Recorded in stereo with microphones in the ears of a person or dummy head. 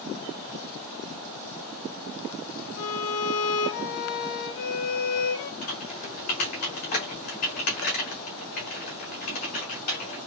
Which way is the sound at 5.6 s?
40° left (ahead or behind).